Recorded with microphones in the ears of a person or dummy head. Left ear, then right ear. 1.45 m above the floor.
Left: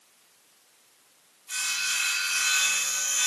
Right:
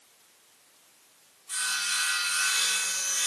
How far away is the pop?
I don't hear a pop.